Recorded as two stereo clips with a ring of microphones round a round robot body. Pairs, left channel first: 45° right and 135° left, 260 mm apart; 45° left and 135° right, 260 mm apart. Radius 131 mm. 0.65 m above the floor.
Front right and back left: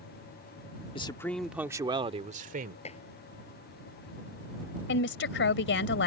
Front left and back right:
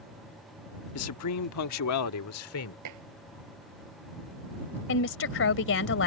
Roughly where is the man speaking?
Ahead left.